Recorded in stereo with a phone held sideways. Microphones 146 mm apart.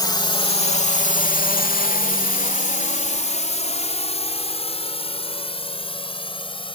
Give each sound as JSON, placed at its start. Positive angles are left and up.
{"t": 0.0, "sound": "a drone", "side_deg": 30}